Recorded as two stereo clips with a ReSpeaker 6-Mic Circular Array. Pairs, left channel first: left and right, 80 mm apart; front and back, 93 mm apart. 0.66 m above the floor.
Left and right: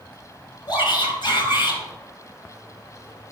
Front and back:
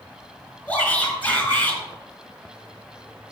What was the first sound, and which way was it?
A shout, 70° left.